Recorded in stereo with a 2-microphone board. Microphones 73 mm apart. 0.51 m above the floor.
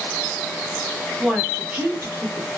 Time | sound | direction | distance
1.2 | a woman speaking | 5° right (ahead or behind) | 1.0 m